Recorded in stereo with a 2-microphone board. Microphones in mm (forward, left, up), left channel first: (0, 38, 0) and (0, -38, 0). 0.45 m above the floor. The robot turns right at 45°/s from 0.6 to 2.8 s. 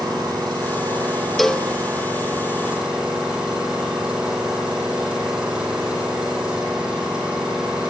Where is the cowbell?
5° left (ahead or behind), 0.7 m; by 1.7 s 10° left (ahead or behind), 0.7 m.